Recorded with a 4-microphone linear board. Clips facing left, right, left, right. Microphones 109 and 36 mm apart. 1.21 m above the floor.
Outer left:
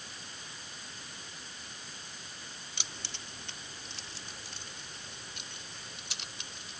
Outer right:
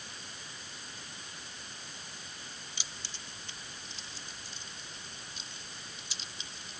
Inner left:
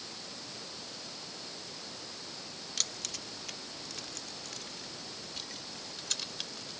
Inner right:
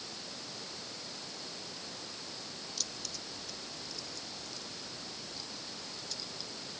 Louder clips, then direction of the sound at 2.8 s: Outer left 2 dB, inner left 6 dB; 65° left (ahead or behind).